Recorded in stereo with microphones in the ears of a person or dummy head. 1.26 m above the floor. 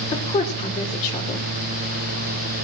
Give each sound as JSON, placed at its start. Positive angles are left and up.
{"t": 0.1, "sound": "a woman speaking", "side_deg": 35, "distance_m": 3.0}